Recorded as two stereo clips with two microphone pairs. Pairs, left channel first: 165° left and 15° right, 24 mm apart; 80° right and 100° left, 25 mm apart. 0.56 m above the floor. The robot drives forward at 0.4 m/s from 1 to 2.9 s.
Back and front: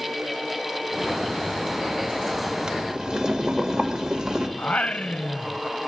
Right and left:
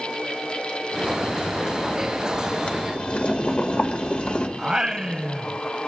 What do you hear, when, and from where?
2.7 s boiling: 70° right, 2 m; by 4.5 s 75° right, 2 m
4.6 s singing: 155° left, 0.8 m